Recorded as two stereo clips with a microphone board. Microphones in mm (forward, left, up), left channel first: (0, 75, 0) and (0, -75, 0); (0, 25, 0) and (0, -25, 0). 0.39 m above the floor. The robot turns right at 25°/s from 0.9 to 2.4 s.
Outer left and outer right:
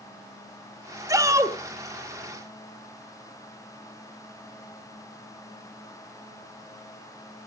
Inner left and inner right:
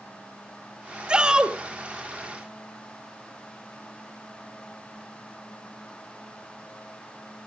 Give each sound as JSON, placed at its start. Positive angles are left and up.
{"t": 1.1, "sound": "a shout", "side_deg": -20, "distance_m": 1.3}